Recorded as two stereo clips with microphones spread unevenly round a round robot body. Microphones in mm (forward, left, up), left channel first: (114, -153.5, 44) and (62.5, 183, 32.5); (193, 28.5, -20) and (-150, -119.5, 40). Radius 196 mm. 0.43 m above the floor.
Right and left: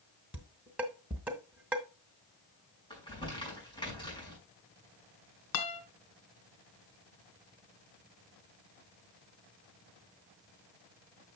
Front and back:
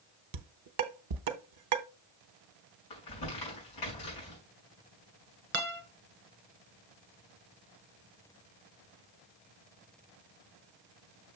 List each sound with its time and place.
0.3 s dishes clattering: 175° right, 0.8 m
2.9 s crumpling: 5° right, 5.5 m
5.5 s a guitar: 95° right, 1.8 m